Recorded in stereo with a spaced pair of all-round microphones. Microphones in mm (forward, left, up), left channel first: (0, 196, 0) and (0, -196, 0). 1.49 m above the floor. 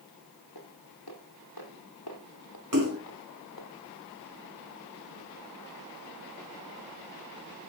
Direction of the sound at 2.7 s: 55° right (ahead or behind).